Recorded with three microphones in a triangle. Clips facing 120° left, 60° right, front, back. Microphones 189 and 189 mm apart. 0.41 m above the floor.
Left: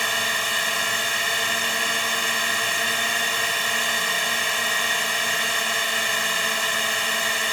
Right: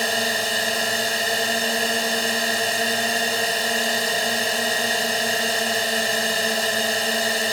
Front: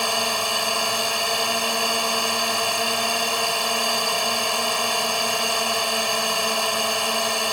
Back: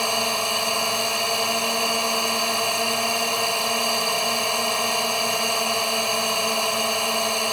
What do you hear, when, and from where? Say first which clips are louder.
0.0 s a drone: right 6 dB, even; 90° right